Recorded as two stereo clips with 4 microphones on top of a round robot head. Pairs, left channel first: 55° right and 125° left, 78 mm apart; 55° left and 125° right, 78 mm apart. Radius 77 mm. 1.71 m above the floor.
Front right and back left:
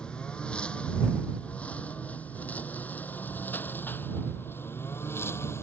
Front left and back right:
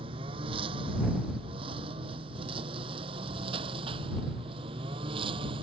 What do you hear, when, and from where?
0.0 s a lawn mower: 135° right; by 5.6 s 115° right